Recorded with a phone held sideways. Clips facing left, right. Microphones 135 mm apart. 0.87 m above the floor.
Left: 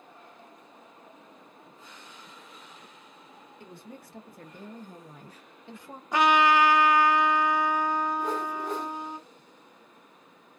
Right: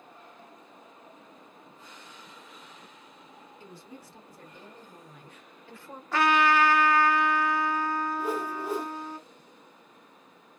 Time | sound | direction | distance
3.6 | a woman speaking | 60° left (ahead or behind) | 1.5 m
6.1 | a trumpet | 20° left (ahead or behind) | 0.5 m
8.2 | a whoosh | 5° right (ahead or behind) | 0.8 m